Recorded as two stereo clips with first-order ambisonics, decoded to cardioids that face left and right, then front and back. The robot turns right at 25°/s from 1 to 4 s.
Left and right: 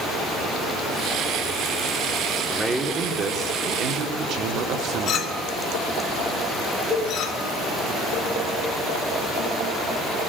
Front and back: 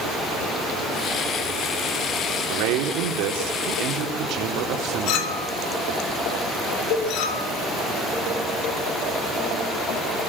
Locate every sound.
2.5 s a man speaking: 175° right, 3.5 m; by 5.4 s 135° right, 3.5 m
5.1 s a clink: 35° left, 2.5 m
6.9 s a cowbell: 10° left, 7.5 m